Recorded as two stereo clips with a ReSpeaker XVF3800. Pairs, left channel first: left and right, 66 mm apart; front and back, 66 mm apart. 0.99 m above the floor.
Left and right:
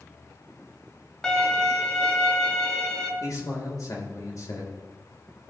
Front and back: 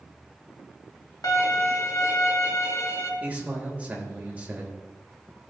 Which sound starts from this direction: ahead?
A violin, at 1.2 s.